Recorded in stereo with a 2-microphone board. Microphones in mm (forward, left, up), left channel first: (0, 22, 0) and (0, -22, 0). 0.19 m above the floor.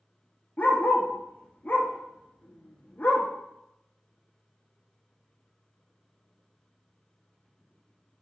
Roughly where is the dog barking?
Left.